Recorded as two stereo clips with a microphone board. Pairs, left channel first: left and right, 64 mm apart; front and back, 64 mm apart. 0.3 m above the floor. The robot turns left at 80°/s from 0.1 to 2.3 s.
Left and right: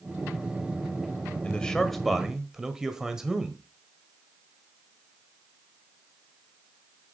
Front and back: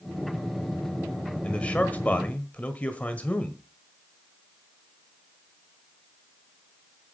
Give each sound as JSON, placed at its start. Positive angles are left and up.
{"t": 1.4, "sound": "a man speaking", "azimuth_deg": 45, "distance_m": 1.4}